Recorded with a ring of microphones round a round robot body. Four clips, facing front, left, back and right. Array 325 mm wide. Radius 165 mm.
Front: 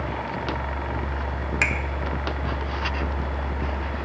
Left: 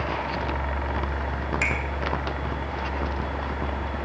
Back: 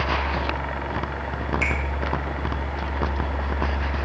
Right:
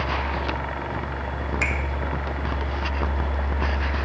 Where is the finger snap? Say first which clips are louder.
Right 1 dB, front 4 dB; straight ahead, 1.3 m.